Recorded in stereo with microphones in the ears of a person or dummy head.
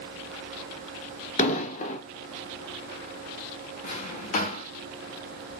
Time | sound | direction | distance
1.4 | an explosion | 45° left (ahead or behind) | 1.0 m
3.8 | a drawer | 35° left (ahead or behind) | 0.9 m